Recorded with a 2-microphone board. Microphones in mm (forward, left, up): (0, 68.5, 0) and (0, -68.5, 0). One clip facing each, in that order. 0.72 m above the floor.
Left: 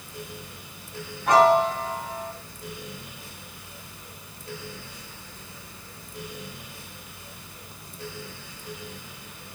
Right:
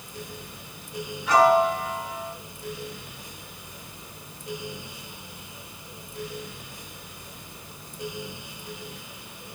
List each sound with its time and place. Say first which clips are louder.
1.3 s a piano: left 1 dB; 55° left (ahead or behind), 4 m